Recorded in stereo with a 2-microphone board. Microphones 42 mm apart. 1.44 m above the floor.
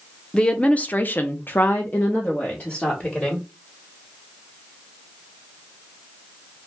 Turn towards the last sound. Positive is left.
turn(degrees=30)  # may be behind; listen again after turning